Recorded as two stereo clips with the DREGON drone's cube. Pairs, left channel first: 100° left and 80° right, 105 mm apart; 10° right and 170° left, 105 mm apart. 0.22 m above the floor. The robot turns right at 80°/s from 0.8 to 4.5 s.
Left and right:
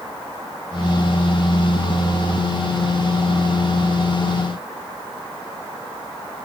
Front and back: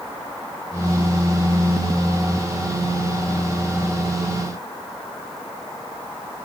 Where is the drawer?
I don't hear a drawer.